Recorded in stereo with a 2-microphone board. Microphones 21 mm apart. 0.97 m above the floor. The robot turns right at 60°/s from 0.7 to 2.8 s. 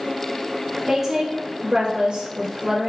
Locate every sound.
0.9 s a woman speaking: 165° right, 1.7 m; by 2.9 s 50° right, 1.7 m